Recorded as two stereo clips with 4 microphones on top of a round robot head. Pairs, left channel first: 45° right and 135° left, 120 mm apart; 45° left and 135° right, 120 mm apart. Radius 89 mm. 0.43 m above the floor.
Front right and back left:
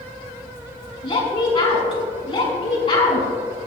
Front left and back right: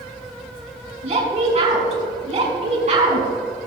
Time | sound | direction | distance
1.0 | a woman speaking | 100° right | 5 m